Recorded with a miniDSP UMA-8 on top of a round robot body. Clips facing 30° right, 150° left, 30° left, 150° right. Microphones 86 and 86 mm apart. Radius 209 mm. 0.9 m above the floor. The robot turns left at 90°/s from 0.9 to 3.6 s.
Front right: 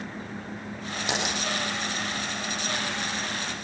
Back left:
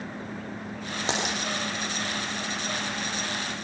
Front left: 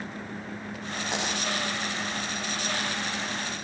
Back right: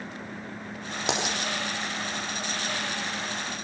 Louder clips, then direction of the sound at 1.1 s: Even, back right 2 dB; 155° right.